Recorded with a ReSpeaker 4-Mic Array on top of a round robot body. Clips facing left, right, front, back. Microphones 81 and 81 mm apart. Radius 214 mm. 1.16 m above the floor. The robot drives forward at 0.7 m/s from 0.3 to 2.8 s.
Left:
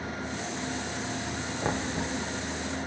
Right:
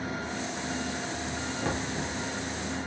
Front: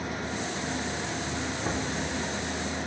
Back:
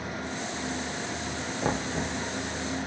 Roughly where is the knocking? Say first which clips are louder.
Left 3 dB, back 5 dB; behind left.